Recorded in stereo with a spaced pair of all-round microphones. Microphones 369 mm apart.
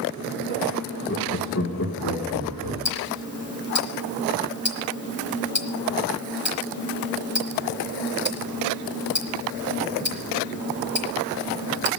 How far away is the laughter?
About 1.2 m.